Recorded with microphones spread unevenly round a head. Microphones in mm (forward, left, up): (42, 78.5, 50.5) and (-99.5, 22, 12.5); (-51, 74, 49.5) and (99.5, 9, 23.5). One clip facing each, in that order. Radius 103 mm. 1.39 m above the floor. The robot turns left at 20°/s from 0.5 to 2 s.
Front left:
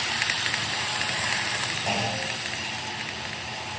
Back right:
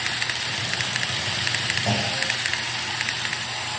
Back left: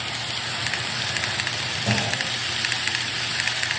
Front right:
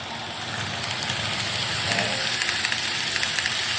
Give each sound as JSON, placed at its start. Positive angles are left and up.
{"t": 1.9, "sound": "a clunk", "azimuth_deg": 150, "distance_m": 7.5}